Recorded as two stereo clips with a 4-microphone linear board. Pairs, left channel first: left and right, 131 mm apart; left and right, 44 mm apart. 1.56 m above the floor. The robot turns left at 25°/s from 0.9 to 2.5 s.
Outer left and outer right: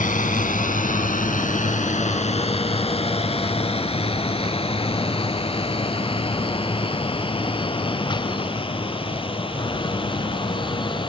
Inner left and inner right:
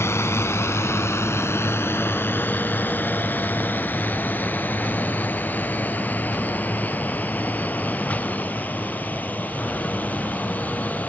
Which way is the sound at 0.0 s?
80° left.